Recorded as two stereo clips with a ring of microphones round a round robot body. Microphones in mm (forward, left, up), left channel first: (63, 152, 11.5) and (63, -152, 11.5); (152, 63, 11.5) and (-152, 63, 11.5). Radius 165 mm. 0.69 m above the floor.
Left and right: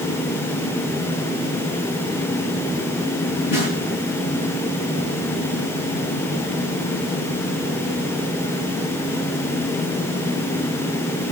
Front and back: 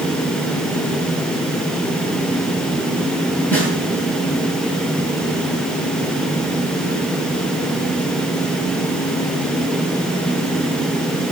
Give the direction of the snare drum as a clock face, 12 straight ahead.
9 o'clock.